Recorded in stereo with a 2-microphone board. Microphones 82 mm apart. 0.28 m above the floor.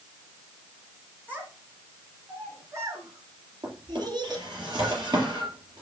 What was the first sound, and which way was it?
A child speaking, 20° right (ahead or behind).